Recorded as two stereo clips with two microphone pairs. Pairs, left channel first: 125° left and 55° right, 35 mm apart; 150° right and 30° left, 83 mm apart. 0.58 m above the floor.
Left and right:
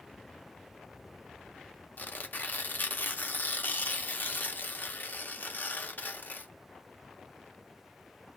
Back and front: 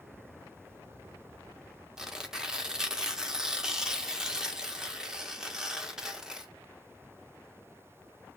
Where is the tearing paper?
105° left, 0.6 m.